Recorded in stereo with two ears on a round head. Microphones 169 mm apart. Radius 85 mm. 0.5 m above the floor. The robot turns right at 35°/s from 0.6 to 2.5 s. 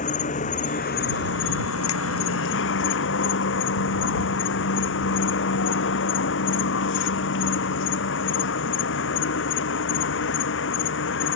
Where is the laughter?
No laughter in this recording.